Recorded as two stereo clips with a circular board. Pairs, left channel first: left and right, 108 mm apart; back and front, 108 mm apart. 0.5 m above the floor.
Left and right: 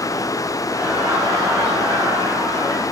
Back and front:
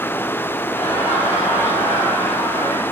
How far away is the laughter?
About 5 m.